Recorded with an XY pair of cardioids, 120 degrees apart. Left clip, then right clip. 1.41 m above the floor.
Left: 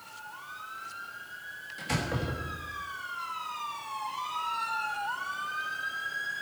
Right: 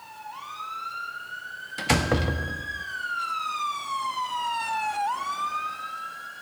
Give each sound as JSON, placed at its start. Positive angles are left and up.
{"t": 1.8, "sound": "a door slam", "azimuth_deg": -65, "distance_m": 1.7}